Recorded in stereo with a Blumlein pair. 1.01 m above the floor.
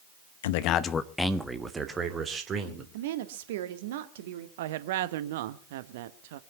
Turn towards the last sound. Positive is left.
turn(degrees=-55)